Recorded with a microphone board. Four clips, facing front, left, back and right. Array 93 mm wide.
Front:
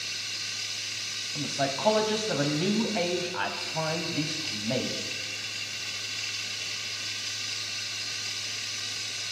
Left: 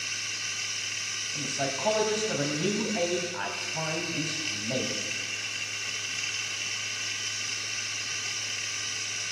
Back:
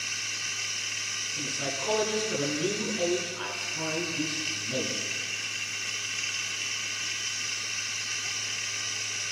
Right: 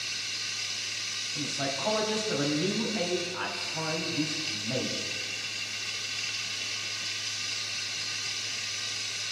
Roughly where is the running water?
Behind left.